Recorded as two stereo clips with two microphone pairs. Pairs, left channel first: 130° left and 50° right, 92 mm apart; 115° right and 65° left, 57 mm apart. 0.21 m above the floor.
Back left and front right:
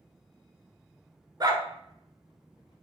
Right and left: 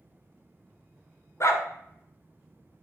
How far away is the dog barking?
About 1.0 m.